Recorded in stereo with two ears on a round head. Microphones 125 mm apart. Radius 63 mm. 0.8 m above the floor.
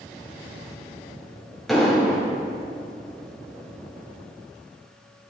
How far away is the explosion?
About 2.0 m.